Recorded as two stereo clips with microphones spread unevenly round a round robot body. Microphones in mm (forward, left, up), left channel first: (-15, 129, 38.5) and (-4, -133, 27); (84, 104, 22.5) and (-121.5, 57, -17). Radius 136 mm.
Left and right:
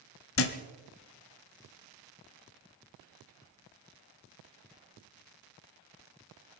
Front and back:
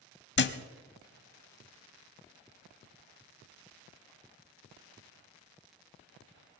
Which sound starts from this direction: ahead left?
A thud, at 0.4 s.